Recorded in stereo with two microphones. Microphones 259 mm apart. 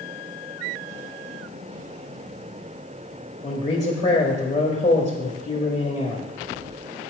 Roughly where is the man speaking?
Left.